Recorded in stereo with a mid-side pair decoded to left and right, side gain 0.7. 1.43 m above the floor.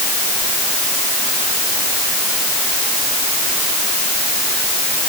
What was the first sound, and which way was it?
Only background noise.